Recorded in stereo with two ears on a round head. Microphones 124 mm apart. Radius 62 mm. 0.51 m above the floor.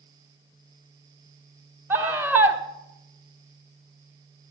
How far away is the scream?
About 1.3 m.